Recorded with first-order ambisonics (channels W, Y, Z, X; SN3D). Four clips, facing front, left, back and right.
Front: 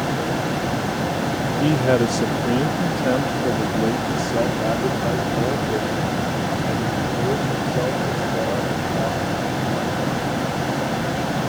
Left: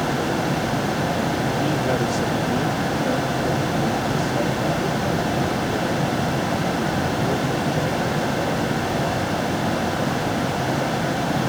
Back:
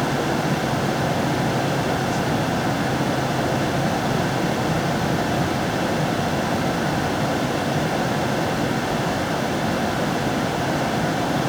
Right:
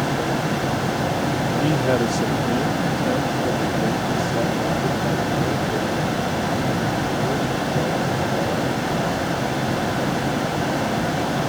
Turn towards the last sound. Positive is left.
turn(degrees=-5)